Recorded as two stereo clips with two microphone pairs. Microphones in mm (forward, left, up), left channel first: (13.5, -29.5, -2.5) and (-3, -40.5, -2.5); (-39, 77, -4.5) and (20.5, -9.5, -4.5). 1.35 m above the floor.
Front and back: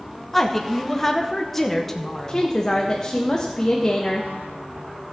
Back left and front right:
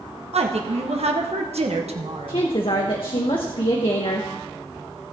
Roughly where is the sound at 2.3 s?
Left.